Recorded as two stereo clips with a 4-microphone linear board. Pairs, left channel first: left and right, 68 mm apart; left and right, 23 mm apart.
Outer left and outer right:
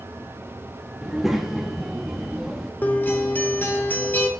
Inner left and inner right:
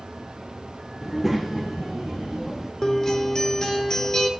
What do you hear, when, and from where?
1.0 s a child speaking: 5° right (ahead or behind), 0.6 m
2.8 s a guitar: 25° left (ahead or behind), 0.7 m